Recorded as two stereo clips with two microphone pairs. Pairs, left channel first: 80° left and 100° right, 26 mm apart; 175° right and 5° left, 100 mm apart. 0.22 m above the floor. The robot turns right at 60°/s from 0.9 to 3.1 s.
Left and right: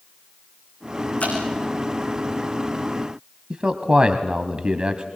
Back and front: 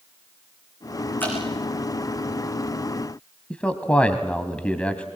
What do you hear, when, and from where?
1.2 s dripping: 110° left, 5.5 m; by 1.4 s 120° left, 5.5 m
3.5 s a man speaking: 110° right, 1.1 m